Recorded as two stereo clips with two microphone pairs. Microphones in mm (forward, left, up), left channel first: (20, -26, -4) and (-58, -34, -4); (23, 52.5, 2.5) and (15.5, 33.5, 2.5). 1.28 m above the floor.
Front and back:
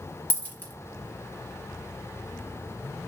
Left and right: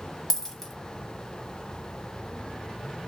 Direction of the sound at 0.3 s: 30° left.